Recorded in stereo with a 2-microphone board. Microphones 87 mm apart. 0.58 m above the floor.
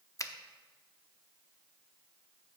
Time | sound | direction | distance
0.2 | a finger snap | 35° left (ahead or behind) | 0.6 m